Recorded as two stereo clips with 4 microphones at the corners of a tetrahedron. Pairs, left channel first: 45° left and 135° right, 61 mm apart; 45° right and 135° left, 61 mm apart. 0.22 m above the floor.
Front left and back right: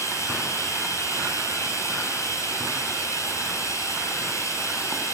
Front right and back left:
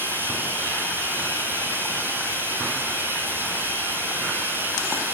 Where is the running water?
80° left, 5.5 m.